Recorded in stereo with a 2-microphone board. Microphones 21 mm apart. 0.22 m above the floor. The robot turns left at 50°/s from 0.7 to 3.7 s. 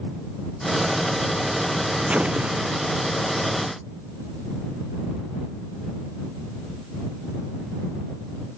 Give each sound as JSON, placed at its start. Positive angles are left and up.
{"t": 2.1, "sound": "an explosion", "azimuth_deg": -85}